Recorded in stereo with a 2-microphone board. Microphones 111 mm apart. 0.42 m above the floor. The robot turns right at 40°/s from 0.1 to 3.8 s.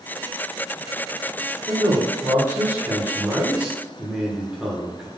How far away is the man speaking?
About 1.4 m.